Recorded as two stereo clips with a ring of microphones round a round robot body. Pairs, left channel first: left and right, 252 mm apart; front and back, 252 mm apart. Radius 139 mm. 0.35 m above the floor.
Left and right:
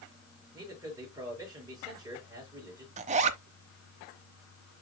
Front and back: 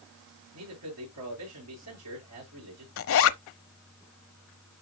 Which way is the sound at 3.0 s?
25° right.